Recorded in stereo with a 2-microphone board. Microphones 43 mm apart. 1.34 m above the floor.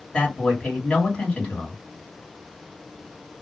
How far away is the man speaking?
About 2.5 m.